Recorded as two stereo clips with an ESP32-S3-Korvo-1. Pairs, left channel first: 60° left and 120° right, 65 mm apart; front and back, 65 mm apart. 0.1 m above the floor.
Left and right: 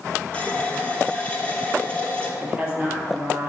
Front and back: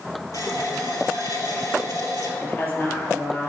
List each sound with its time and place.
0.3 s a running tap: 5° right, 1.5 m
2.4 s a woman speaking: 60° right, 2.5 m